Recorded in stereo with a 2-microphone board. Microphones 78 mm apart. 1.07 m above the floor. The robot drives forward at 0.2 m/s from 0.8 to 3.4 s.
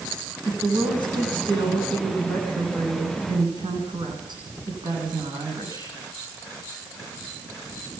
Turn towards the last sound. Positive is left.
turn(degrees=-75)  # may be behind; listen again after turning